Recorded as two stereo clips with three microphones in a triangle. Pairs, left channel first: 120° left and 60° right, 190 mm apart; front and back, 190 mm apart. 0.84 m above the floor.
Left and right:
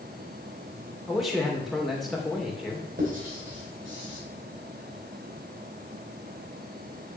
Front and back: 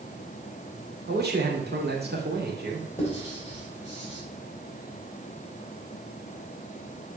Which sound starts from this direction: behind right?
A man speaking, at 1.1 s.